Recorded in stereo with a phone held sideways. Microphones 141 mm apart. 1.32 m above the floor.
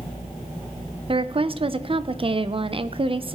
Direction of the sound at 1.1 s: 40° right (ahead or behind).